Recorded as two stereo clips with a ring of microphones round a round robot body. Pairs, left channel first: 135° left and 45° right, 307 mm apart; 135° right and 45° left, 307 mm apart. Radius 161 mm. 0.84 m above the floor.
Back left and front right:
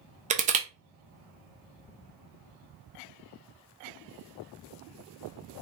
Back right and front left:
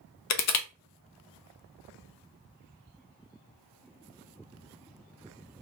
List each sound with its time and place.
0.3 s crushing: 110° right, 0.6 m